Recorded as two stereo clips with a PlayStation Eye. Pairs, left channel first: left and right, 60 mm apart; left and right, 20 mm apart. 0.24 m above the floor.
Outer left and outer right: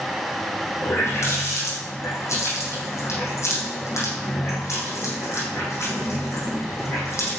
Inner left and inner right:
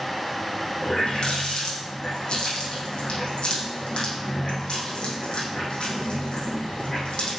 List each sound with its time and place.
0.8 s a running tap: 55° left (ahead or behind), 7 m